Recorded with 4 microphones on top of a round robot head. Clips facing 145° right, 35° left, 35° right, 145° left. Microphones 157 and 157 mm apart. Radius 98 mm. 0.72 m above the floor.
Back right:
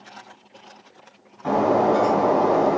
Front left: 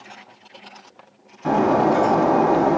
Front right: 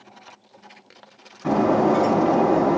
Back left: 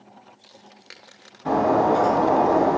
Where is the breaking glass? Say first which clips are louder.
Front left 1 dB, front right 1 dB; 40° right, 3 m.